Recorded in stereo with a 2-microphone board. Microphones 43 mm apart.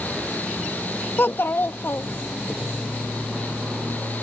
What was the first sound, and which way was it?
A child speaking, 60° left (ahead or behind).